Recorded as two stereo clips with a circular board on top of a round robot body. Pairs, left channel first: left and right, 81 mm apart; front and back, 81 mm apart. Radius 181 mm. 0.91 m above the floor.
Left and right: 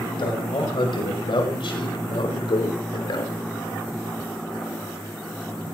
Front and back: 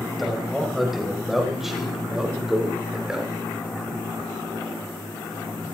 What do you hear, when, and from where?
0.2 s a man speaking: 90° left, 5 m; by 3.3 s 100° left, 3 m